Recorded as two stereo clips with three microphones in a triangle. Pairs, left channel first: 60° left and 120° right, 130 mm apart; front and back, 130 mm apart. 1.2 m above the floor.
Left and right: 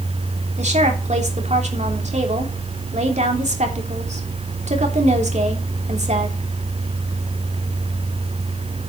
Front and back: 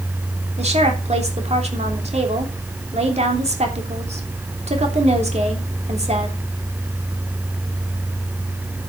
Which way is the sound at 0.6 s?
150° right.